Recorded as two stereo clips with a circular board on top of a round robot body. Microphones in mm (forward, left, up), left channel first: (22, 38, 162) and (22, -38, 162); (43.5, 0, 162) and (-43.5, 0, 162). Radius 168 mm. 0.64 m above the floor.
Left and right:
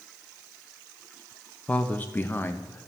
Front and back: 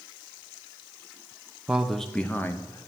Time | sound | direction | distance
1.7 | a man speaking | 125° left | 1.0 m